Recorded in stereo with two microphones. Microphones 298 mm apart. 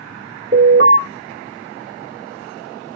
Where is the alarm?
45° right (ahead or behind), 1.1 m.